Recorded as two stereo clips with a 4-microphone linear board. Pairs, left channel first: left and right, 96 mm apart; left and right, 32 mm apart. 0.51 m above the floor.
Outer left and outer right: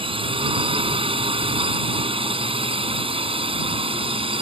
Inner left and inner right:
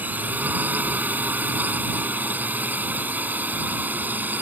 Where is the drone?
70° right (ahead or behind); by 4.4 s 75° right (ahead or behind).